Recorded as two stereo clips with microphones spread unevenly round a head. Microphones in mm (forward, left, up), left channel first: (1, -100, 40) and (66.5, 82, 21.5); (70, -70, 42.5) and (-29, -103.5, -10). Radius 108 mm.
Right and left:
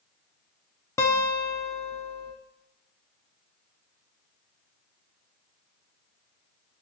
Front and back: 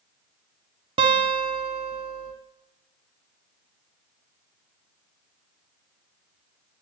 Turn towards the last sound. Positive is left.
turn(degrees=170)